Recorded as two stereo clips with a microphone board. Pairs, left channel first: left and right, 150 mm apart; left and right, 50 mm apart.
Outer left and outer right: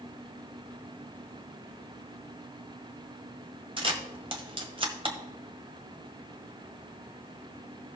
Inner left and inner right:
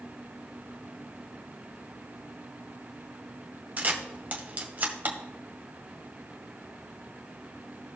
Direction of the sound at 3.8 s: 35° right (ahead or behind).